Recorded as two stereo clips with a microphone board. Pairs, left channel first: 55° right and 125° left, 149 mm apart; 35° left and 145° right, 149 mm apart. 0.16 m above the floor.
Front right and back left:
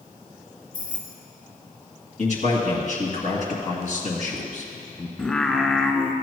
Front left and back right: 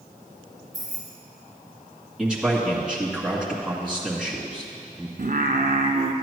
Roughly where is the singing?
Behind right.